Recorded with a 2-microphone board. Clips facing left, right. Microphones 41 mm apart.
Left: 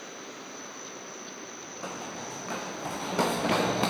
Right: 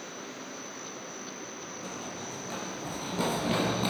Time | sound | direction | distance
1.8 | running footsteps | 85° left | 5.5 m